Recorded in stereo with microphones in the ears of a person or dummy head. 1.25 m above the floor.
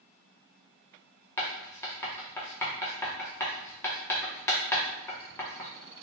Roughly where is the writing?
Centre.